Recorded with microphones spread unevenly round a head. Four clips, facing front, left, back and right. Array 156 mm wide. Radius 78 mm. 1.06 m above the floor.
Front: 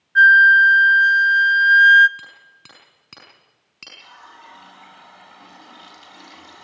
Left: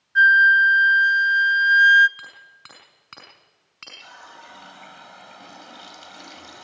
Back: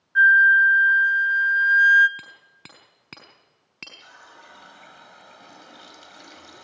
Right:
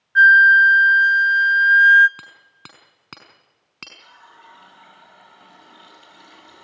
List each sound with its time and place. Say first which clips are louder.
0.1 s a flute: right 4 dB, front 4 dB; 110° right, 0.5 m
2.2 s hammering: left 1 dB, front 2 dB; 125° right, 4.5 m
4.0 s a running tap: left 3 dB, front 7 dB; 105° left, 4 m